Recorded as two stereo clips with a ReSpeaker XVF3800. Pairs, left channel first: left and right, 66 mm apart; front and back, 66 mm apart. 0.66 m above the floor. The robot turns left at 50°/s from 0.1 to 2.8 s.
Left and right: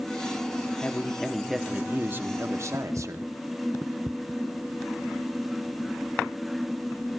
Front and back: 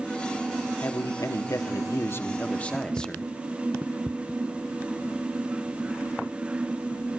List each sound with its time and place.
0.8 s a man speaking: 25° left, 1.1 m; by 3.2 s 75° right, 1.1 m